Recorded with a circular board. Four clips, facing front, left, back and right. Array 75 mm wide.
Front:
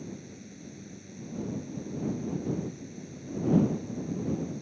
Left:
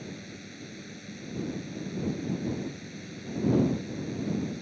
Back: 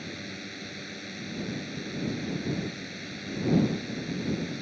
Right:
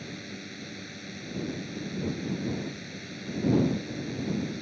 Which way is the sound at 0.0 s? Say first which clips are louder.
Right 2 dB, back 3 dB; 165° right.